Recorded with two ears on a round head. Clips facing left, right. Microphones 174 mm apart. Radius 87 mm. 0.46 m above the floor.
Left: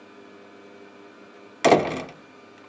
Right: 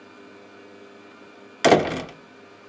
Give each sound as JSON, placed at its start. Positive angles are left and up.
{"t": 1.6, "sound": "a door slam", "side_deg": -5, "distance_m": 0.5}